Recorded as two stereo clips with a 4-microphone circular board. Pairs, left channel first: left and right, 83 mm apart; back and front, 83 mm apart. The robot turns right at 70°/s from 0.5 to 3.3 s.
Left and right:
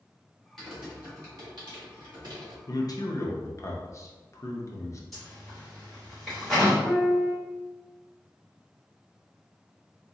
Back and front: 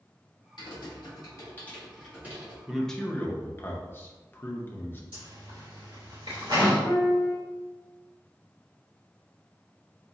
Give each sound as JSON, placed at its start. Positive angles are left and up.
{"t": 0.6, "sound": "typing on a keyboard", "azimuth_deg": 175, "distance_m": 1.5}
{"t": 2.7, "sound": "a man speaking", "azimuth_deg": 80, "distance_m": 0.7}
{"t": 5.1, "sound": "a zipper", "azimuth_deg": 0, "distance_m": 1.9}
{"t": 6.8, "sound": "a piano", "azimuth_deg": -170, "distance_m": 0.9}